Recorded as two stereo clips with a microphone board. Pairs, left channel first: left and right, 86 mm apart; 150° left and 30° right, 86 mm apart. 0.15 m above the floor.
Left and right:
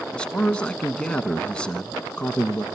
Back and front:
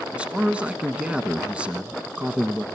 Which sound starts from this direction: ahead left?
A man speaking, at 0.1 s.